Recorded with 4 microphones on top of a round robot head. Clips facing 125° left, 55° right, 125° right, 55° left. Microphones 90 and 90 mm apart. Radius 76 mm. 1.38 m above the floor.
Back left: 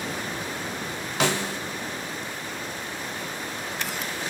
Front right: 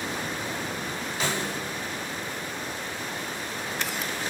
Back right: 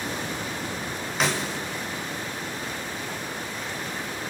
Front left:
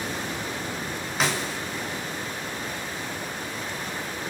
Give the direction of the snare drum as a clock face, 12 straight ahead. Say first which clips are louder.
Back left 5 dB, back right 1 dB; 7 o'clock.